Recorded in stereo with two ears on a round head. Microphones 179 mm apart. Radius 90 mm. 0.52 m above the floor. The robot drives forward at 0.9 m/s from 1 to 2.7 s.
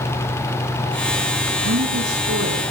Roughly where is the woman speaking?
Right.